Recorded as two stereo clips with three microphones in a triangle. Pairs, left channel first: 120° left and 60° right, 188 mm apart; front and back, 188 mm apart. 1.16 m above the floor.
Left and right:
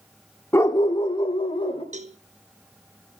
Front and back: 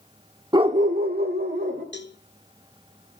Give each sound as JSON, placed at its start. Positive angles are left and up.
{"t": 0.5, "sound": "a dog barking", "azimuth_deg": 175, "distance_m": 0.7}
{"t": 1.9, "sound": "a cowbell", "azimuth_deg": -10, "distance_m": 0.8}